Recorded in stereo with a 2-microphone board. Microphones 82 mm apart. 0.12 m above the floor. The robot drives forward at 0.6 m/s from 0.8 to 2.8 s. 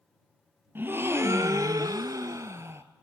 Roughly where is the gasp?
Right.